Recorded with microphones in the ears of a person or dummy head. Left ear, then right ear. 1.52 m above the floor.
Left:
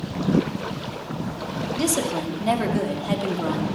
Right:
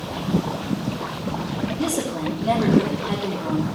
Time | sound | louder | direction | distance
1.8 | a woman speaking | left 3 dB | 80° left | 3 m